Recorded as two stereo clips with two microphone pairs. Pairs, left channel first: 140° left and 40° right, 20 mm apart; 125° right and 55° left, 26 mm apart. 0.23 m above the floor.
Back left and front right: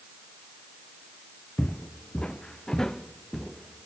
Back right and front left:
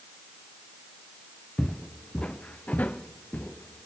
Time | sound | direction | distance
1.6 | footsteps | 170° left | 1.1 m